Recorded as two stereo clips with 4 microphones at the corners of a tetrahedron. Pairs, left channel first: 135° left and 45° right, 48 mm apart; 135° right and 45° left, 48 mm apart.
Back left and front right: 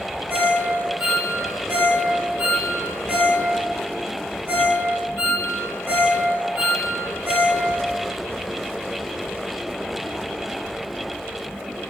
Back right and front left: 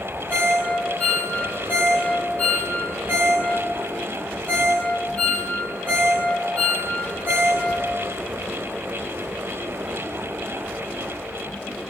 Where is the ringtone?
80° right, 2.5 m.